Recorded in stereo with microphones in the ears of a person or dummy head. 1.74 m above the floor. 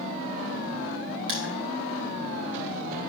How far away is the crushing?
About 2.5 m.